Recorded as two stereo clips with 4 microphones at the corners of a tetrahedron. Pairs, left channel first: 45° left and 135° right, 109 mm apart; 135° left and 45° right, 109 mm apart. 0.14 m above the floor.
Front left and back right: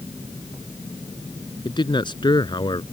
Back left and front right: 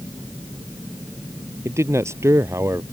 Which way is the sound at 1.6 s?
10° left.